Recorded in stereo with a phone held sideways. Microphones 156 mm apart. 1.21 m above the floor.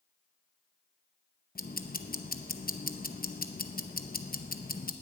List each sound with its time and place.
1.6 s ticking: 75° left (ahead or behind), 0.8 m